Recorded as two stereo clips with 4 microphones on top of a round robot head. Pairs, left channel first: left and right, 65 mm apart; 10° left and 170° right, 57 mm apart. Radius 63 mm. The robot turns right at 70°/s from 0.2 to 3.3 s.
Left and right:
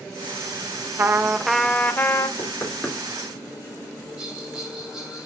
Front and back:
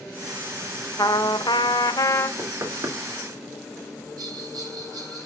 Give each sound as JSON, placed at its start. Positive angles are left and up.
{"t": 1.0, "sound": "a trumpet", "azimuth_deg": -40, "distance_m": 0.6}
{"t": 2.4, "sound": "knocking", "azimuth_deg": 140, "distance_m": 2.5}
{"t": 4.2, "sound": "a bell", "azimuth_deg": -170, "distance_m": 4.0}